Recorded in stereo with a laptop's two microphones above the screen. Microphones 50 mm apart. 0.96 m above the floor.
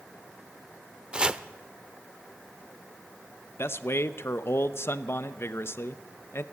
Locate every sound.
1.1 s chopping: 15° right (ahead or behind), 0.7 m
3.6 s a man speaking: 55° left (ahead or behind), 0.9 m